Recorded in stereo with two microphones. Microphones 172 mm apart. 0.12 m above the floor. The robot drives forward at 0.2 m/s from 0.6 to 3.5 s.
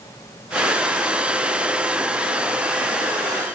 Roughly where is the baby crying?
No baby crying in this recording.